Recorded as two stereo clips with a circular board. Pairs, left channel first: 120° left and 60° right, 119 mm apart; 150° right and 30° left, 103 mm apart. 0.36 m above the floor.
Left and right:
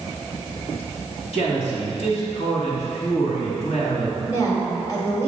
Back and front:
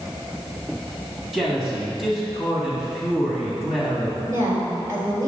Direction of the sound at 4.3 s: 75° left.